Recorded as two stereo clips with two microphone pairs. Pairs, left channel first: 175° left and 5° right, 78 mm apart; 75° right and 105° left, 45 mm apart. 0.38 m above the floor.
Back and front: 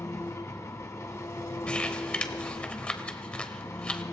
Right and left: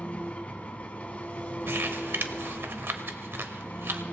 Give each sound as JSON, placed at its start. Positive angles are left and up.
{"t": 0.0, "sound": "an engine running", "azimuth_deg": -135, "distance_m": 1.4}
{"t": 1.7, "sound": "crumpling", "azimuth_deg": 100, "distance_m": 1.0}